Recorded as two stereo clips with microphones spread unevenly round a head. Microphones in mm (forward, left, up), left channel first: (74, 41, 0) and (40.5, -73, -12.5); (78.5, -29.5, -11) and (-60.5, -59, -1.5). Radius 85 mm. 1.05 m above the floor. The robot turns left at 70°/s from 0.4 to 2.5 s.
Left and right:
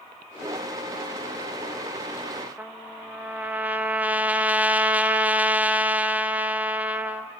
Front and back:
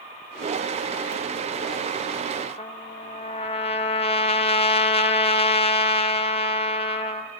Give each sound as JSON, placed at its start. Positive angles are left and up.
{"t": 2.6, "sound": "a trumpet", "azimuth_deg": -30, "distance_m": 1.0}